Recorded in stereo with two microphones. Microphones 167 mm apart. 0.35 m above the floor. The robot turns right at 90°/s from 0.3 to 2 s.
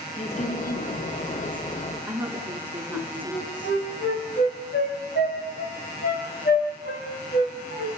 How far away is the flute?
About 7 m.